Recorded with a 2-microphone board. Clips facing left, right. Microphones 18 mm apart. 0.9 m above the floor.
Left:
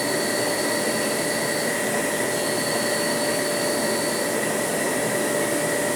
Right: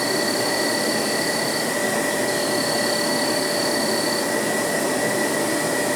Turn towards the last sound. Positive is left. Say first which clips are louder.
# right 2 dB
turn(degrees=-80)